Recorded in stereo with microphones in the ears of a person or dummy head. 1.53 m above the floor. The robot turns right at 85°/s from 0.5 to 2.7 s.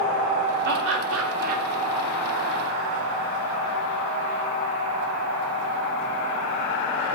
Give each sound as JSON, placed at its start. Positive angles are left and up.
{"t": 0.7, "sound": "laughter", "azimuth_deg": -120, "distance_m": 2.5}